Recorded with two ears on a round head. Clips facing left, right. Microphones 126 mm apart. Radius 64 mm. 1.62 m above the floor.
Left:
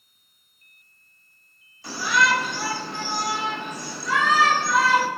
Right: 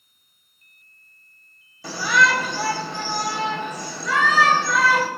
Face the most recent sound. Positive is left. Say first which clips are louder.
# right 2 dB
turn(degrees=-80)